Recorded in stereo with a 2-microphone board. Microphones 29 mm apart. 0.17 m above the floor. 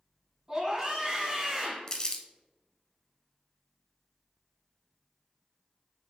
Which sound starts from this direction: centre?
A scream, at 0.5 s.